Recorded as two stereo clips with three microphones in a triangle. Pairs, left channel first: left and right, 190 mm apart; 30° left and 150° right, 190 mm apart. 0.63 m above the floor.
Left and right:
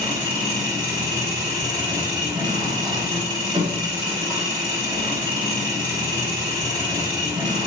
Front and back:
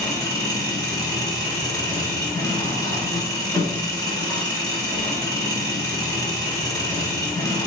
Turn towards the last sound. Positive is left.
turn(degrees=-35)